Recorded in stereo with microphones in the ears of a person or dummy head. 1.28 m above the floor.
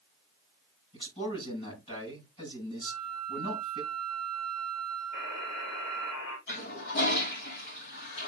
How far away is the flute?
About 5 m.